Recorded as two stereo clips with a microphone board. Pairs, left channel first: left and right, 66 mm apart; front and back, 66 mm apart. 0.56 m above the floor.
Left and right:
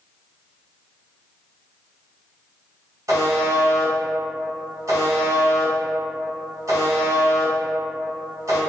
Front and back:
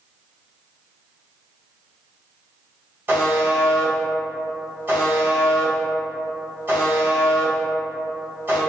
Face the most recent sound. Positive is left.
turn(degrees=-120)